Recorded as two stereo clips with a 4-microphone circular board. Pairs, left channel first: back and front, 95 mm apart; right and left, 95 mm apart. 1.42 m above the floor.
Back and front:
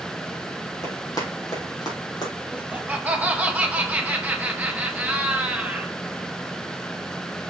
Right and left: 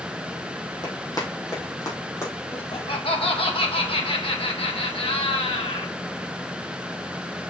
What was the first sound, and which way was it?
Running footsteps, 135° right.